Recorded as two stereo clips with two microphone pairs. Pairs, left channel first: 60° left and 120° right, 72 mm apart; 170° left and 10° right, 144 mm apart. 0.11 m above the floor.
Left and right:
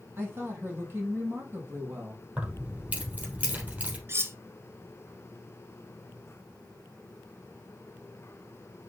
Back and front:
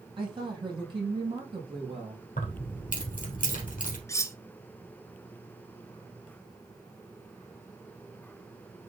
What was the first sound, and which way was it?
A woman speaking, 60° right.